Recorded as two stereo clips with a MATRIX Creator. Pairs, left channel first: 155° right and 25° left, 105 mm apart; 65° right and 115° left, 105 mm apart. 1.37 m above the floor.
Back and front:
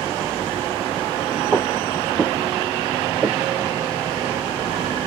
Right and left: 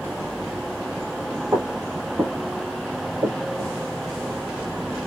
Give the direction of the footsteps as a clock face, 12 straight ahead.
7 o'clock.